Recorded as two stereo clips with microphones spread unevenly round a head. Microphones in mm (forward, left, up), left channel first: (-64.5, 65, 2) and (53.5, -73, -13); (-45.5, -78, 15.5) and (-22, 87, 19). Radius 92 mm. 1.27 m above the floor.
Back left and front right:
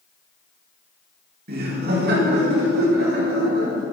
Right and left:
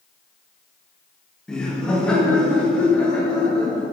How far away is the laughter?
About 2 m.